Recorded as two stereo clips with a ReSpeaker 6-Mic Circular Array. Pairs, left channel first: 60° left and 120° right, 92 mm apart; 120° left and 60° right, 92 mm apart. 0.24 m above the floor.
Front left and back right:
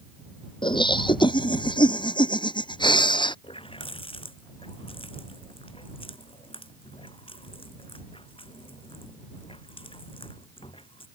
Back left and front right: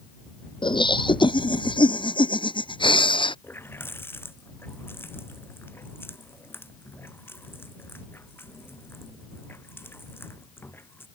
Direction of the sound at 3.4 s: 55° left.